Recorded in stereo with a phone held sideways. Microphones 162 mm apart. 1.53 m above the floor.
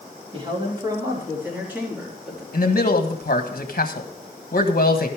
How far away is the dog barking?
No dog barking in this recording.